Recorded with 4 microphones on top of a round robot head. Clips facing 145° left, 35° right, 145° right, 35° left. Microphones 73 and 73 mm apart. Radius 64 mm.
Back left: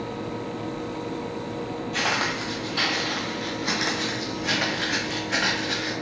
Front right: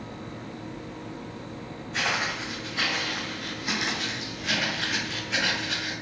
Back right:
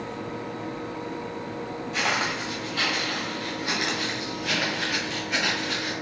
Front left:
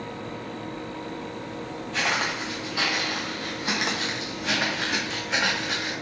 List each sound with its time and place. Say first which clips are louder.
1.9 s footsteps: back left 2 dB, even; 145° left, 0.8 m; by 5.9 s 90° left, 2.5 m